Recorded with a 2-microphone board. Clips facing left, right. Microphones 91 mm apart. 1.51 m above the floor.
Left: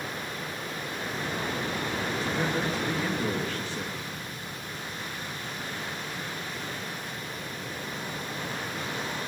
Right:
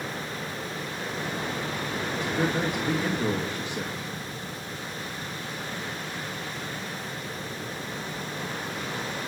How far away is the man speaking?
About 3 m.